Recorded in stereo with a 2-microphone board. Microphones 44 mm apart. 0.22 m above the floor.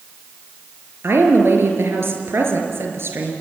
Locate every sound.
1.0 s a woman speaking: 60° right (ahead or behind), 4.5 m